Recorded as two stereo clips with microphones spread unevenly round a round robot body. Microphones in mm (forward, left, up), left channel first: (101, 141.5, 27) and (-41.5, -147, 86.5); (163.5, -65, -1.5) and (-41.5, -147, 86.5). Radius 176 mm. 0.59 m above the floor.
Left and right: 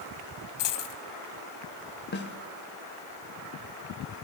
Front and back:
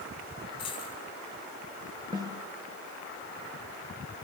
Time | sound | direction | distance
0.6 | a dropped coin | 95° left | 2 m
2.1 | a snare drum | 120° left | 1.5 m